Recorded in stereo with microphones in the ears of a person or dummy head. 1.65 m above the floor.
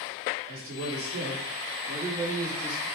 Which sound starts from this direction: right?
A man speaking, at 0.5 s.